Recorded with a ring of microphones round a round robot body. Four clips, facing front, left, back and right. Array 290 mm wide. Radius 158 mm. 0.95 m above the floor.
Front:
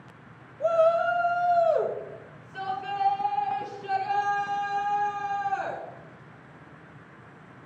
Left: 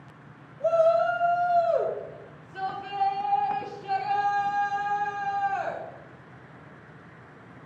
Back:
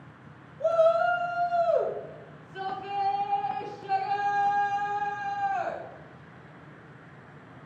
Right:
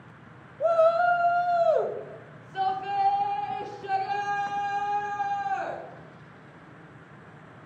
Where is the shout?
80° right, 1.0 m; by 5.8 s 55° right, 4 m.